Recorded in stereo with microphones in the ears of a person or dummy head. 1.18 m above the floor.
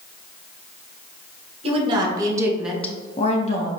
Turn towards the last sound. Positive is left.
turn(degrees=40)  # may be behind; listen again after turning